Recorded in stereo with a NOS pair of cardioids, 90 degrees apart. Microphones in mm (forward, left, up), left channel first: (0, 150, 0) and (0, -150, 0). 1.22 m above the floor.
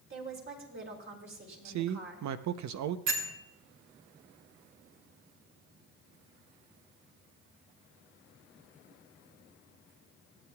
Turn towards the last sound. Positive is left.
turn(degrees=-60)